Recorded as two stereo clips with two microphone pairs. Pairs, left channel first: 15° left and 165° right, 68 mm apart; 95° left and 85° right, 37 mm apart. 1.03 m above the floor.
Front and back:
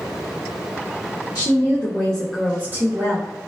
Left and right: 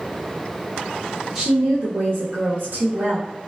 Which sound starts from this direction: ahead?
A woman speaking, at 1.4 s.